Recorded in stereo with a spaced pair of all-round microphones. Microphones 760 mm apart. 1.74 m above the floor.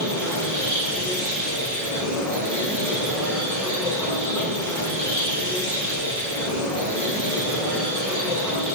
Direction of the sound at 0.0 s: 25° right (ahead or behind).